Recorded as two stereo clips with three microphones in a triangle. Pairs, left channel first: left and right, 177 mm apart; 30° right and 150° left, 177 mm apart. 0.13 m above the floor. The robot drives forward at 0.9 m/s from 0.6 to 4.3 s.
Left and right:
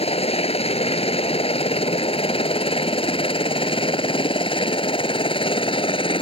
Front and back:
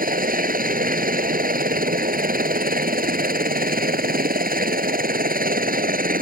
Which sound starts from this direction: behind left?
A helicopter, at 0.0 s.